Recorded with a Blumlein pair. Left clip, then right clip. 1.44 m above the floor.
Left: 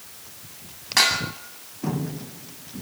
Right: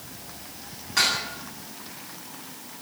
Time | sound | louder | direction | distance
1.0 | dishes clattering | left 3 dB | 25° left | 8.5 m